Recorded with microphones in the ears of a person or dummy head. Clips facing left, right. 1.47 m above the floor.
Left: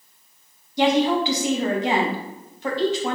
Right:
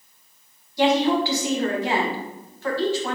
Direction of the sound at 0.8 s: 15° left (ahead or behind).